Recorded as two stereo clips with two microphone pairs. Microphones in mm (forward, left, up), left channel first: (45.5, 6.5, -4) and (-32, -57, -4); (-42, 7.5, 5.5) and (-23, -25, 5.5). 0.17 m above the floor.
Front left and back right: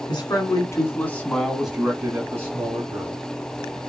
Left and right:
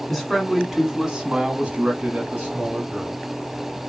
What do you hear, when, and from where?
0.1 s a man speaking: 35° left, 1.5 m; by 3.2 s 100° right, 2 m